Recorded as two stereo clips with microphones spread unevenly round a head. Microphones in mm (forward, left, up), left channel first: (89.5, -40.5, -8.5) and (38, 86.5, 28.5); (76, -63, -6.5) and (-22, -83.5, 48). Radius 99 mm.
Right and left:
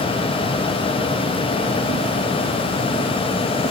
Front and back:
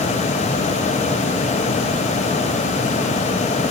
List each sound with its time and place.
Only background noise.